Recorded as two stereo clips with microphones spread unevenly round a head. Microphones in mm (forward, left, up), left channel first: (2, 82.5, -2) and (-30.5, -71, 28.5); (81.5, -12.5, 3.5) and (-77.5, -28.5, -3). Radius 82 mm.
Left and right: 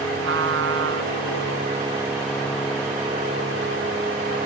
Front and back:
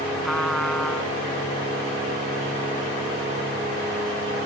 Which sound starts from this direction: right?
A trumpet, at 0.2 s.